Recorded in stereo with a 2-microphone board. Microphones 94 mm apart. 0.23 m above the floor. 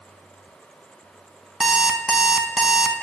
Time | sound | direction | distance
1.6 | an alarm clock | 5° right (ahead or behind) | 0.7 m